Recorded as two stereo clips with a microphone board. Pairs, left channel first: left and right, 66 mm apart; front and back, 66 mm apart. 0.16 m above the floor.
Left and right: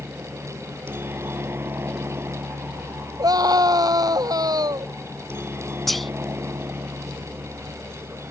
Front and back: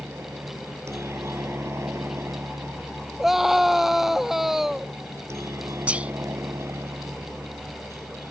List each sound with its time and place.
0.0 s a helicopter: 140° right
3.2 s a scream: 95° right
5.9 s whispering: 175° left